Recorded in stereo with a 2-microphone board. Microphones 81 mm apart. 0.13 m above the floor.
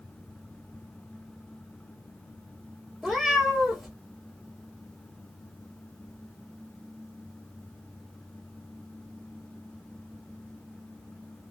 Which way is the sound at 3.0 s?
5° right (ahead or behind).